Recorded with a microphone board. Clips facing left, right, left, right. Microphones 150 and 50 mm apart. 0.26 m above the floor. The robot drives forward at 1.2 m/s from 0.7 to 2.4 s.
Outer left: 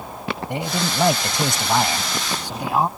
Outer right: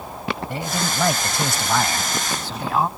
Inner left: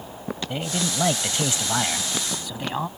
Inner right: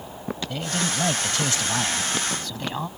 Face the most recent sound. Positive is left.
turn(degrees=15)  # may be behind; listen again after turning